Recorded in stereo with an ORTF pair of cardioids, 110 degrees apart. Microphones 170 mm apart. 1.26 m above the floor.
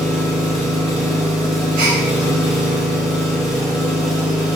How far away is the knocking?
I don't hear knocking.